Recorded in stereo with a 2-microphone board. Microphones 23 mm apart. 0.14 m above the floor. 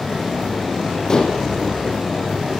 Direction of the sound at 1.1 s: 30° left (ahead or behind).